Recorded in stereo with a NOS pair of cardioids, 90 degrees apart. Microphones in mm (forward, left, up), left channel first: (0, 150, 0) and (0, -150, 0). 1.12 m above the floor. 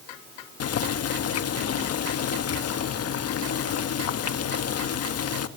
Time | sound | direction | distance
0.6 | boiling | 55° left | 1.5 m